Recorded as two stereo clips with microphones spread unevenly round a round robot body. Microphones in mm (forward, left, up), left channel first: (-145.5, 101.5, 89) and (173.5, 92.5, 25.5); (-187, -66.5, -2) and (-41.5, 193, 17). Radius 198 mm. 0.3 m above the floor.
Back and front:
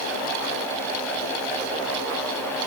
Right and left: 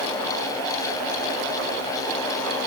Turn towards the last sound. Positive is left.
No sound to turn to.